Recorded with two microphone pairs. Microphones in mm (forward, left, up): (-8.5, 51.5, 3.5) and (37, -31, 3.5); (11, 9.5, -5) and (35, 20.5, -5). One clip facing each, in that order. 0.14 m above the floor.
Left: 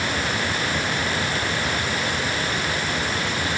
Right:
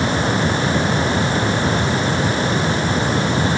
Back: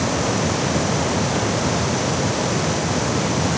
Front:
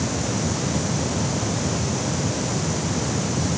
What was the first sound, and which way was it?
Only background noise.